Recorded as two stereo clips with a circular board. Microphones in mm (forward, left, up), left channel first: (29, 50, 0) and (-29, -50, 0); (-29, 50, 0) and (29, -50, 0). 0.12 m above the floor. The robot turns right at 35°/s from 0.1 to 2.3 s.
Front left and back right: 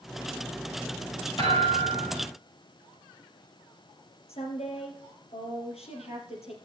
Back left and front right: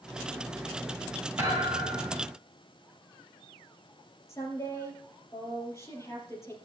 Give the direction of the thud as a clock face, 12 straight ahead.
12 o'clock.